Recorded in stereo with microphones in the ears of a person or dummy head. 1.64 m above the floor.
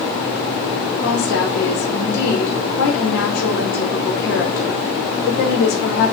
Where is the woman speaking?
60° left (ahead or behind), 2.5 m.